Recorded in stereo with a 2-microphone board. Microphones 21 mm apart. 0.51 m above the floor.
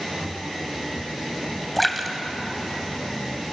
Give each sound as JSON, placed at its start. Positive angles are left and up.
{"t": 1.8, "sound": "a splash", "side_deg": 5, "distance_m": 2.0}